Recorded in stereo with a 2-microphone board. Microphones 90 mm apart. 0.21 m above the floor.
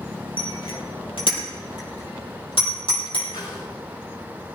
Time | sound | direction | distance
0.4 | a bicycle bell | 75° left (ahead or behind) | 3.5 m
3.3 | a snare drum | 55° left (ahead or behind) | 7.5 m